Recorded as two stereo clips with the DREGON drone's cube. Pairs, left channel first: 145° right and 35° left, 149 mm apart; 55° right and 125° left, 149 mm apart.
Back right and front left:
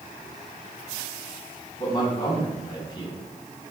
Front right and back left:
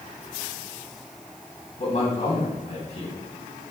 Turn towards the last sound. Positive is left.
turn(degrees=-95)